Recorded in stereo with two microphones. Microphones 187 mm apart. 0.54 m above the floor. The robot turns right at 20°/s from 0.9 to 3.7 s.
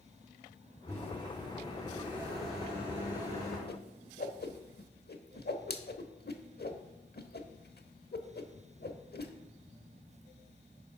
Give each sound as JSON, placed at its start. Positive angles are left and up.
{"t": 0.9, "sound": "a microwave", "azimuth_deg": 170, "distance_m": 5.5}
{"t": 3.7, "sound": "a whoosh", "side_deg": 55, "distance_m": 0.8}